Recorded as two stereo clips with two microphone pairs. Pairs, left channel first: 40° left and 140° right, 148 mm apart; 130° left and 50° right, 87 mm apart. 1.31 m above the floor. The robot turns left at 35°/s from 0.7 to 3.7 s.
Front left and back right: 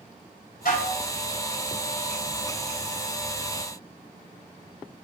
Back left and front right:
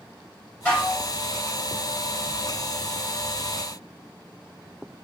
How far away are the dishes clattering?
About 3 m.